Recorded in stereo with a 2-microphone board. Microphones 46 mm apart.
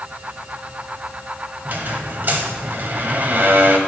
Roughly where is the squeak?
Right.